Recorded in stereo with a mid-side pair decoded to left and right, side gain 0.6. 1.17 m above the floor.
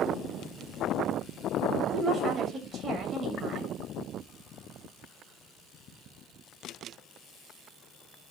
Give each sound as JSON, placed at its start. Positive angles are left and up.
{"t": 1.9, "sound": "a woman speaking", "azimuth_deg": -35, "distance_m": 7.0}